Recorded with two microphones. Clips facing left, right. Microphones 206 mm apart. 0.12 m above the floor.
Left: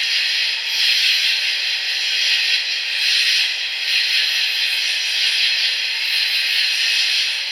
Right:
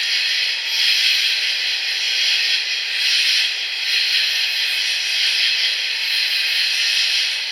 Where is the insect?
80° right, 1.5 m.